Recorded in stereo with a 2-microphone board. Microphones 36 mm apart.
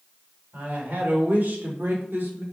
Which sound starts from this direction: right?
A woman speaking, at 0.5 s.